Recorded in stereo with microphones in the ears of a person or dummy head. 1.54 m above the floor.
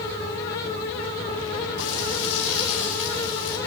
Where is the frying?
80° left, 7 m.